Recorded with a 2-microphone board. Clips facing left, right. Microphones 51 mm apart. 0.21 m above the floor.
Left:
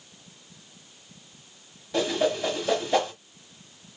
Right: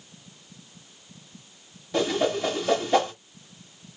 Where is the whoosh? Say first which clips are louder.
Right 1 dB; centre (ahead or behind), 1.5 m.